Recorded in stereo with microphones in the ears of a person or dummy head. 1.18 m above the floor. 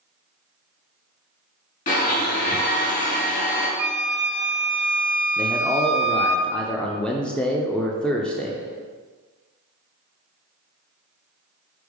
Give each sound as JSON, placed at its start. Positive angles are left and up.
{"t": 1.9, "sound": "a blender", "side_deg": 40, "distance_m": 2.5}
{"t": 3.8, "sound": "a flute", "side_deg": -50, "distance_m": 0.9}
{"t": 5.4, "sound": "a man speaking", "side_deg": 0, "distance_m": 0.5}